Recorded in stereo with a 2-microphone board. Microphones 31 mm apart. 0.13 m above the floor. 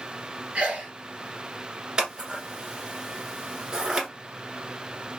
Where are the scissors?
30° right (ahead or behind), 1.4 m.